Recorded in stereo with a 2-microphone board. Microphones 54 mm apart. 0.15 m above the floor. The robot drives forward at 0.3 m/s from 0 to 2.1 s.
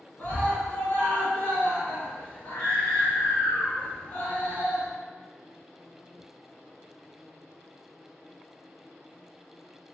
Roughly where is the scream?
Left.